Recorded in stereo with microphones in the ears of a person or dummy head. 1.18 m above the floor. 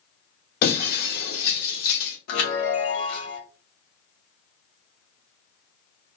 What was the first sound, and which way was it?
Breaking glass, 55° left (ahead or behind).